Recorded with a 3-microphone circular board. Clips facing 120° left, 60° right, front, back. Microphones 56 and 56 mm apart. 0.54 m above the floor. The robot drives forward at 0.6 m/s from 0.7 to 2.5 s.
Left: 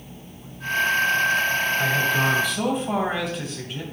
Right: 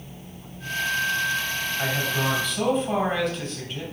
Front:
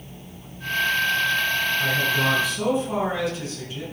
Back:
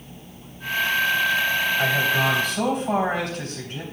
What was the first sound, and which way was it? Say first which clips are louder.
A man speaking: left 2 dB, back 2 dB; 155° right.